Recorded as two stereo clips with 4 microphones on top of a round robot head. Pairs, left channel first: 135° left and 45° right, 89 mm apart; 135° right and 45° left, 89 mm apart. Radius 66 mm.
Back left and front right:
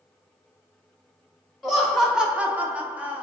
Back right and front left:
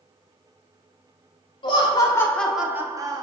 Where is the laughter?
135° right, 0.8 m; by 3.2 s 25° left, 0.8 m.